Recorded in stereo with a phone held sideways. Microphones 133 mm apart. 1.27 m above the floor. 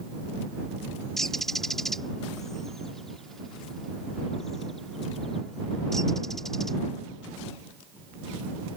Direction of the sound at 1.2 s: 5° left (ahead or behind).